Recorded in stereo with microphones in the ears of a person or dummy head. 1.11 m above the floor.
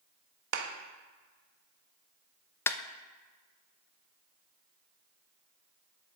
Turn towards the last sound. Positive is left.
turn(degrees=15)  # may be behind; listen again after turning